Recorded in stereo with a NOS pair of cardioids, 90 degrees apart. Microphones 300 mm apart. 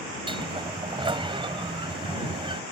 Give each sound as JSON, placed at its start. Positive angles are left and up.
{"t": 0.3, "sound": "a sliding door", "azimuth_deg": -20}